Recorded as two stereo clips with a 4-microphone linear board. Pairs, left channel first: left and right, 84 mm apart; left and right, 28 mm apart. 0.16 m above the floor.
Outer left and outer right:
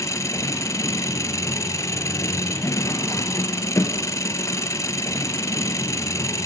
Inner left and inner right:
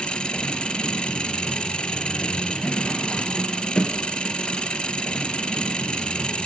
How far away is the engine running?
About 1.6 m.